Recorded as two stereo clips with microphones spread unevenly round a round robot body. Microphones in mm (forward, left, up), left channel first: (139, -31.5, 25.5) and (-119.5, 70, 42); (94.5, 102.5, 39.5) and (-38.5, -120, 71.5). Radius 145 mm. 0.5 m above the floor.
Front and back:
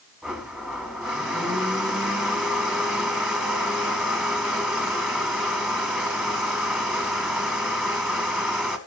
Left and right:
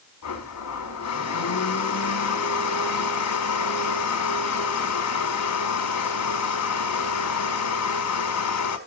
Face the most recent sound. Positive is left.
turn(degrees=70)